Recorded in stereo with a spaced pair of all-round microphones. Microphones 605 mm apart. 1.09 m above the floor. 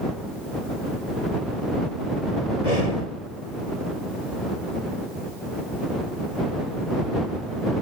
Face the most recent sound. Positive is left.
turn(degrees=85)